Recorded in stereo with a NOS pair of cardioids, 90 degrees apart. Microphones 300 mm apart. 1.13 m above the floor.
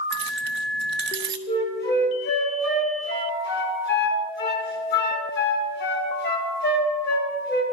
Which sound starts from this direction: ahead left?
A flute, at 1.5 s.